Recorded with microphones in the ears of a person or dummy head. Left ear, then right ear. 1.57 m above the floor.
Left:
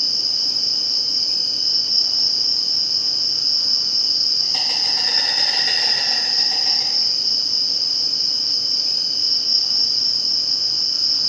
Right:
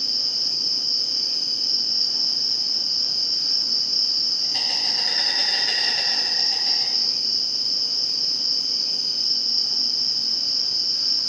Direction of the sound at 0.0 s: 40° left (ahead or behind).